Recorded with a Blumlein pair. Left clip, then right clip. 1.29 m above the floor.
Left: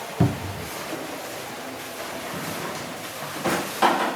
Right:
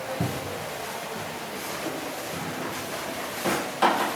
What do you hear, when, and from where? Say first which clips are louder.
0.2 s a cupboard door: left 3 dB; 65° left, 0.5 m
2.3 s a drawer: left 1 dB; 5° left, 1.3 m